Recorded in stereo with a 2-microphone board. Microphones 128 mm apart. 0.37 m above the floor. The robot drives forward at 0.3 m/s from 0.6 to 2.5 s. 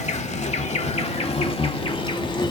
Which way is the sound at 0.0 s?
65° left (ahead or behind).